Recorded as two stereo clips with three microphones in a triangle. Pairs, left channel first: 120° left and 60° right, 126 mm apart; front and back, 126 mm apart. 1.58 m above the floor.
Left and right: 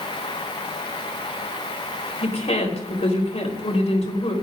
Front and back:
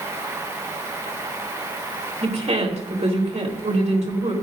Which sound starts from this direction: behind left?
A woman speaking, at 2.2 s.